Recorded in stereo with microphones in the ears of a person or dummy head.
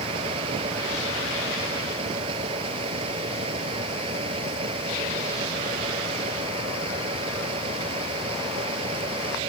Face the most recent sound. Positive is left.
turn(degrees=-30)  # may be behind; listen again after turning